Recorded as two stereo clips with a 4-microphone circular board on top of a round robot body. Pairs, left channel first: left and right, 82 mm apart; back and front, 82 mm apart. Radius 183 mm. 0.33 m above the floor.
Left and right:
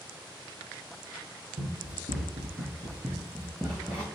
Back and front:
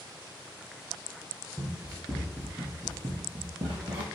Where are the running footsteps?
105° right, 0.9 m; by 4.0 s 10° left, 0.8 m.